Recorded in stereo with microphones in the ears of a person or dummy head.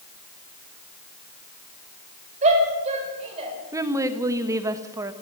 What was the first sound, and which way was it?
A shout, 35° right (ahead or behind).